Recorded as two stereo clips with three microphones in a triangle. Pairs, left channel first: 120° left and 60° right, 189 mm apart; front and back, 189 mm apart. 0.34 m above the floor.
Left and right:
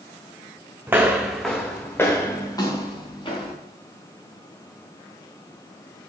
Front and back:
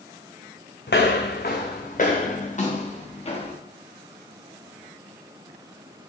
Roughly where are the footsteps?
Ahead.